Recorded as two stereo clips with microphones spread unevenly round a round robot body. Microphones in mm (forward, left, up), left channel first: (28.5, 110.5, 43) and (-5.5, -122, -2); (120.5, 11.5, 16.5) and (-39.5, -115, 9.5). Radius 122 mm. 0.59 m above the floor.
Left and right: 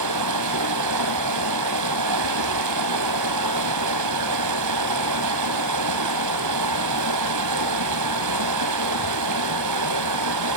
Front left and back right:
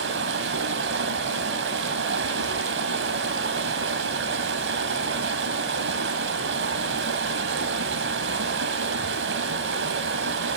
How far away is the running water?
About 2.5 m.